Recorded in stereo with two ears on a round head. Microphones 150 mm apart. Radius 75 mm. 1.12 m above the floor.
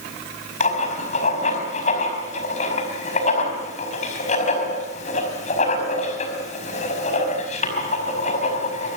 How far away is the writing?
About 5 m.